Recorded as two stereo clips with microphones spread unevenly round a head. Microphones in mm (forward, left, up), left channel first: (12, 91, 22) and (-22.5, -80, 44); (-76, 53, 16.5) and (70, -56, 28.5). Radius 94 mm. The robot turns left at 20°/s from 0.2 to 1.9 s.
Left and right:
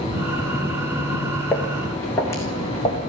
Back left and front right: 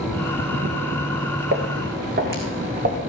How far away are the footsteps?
About 3.5 m.